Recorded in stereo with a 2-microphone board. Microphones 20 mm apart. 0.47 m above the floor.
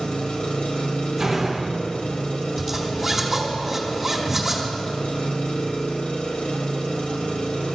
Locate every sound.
0.0 s an engine running: 70° left (ahead or behind), 1.3 m
1.2 s a door slam: 10° right (ahead or behind), 2 m
2.6 s a zipper: 5° right (ahead or behind), 3 m